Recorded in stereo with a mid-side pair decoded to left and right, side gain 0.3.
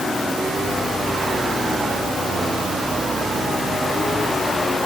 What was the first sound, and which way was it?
Only background noise.